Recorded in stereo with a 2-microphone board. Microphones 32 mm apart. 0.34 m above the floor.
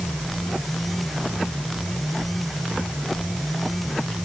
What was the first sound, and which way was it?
Only background noise.